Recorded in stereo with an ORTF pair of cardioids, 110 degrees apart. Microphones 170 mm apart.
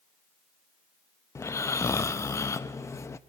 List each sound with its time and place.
1.4 s snoring: 15° left, 0.7 m